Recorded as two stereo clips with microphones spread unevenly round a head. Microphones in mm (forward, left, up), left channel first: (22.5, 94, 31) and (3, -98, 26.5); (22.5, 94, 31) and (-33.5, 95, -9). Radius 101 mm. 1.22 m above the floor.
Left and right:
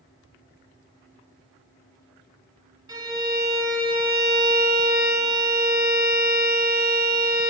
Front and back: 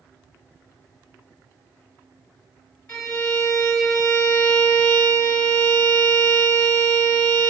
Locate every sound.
2.9 s a violin: 25° right, 2.5 m